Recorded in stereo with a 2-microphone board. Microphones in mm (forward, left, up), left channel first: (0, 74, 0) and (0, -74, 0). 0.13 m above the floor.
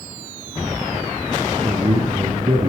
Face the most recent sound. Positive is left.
turn(degrees=-45)  # may be behind; listen again after turning